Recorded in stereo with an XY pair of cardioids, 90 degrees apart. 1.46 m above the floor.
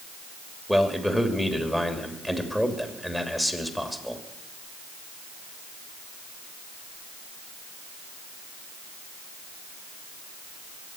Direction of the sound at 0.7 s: 5° right.